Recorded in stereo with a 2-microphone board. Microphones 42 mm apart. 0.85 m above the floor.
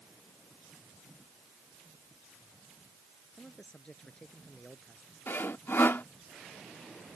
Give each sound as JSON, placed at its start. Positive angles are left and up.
{"t": 3.4, "sound": "a man speaking", "side_deg": 25}
{"t": 5.3, "sound": "sawing", "side_deg": 65}